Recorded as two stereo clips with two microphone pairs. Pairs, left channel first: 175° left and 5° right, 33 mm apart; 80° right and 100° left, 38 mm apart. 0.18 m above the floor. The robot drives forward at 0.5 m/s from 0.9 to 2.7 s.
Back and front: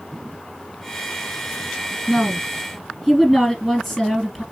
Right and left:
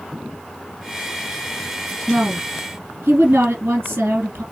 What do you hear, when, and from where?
2.1 s a woman speaking: 90° left, 3 m; by 4.4 s 100° left, 3 m